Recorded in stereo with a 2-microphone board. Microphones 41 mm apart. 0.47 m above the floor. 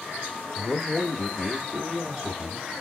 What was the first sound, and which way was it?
A man speaking, 20° left (ahead or behind).